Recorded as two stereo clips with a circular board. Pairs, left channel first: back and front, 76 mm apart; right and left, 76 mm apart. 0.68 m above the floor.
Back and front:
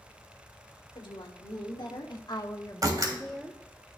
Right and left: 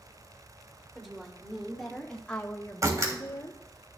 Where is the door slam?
40° left, 3 m.